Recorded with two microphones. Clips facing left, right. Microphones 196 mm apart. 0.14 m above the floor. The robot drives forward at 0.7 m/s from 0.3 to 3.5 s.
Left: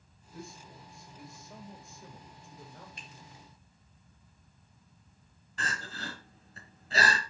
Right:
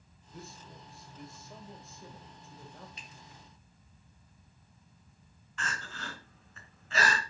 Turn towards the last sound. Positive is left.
turn(degrees=35)  # may be behind; listen again after turning